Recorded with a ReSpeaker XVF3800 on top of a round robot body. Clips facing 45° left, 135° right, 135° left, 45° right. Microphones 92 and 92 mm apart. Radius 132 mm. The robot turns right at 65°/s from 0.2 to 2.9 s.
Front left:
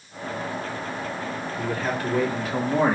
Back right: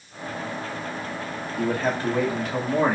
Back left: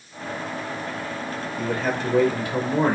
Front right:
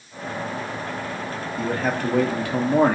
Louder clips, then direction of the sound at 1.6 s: Back right 4 dB, front right 1 dB; 100° right.